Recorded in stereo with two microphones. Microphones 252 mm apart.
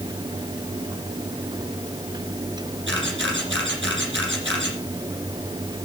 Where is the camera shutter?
55° right (ahead or behind), 7 m.